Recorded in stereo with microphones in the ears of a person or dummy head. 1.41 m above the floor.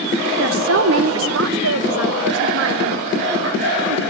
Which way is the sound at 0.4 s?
70° right (ahead or behind).